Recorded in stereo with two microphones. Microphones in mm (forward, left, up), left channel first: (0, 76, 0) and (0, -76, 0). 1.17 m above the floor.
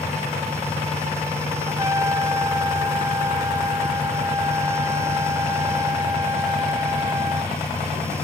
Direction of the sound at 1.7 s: 20° right (ahead or behind).